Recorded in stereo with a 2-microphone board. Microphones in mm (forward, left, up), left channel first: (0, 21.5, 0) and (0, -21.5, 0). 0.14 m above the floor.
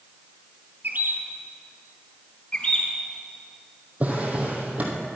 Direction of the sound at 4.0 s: 35° right (ahead or behind).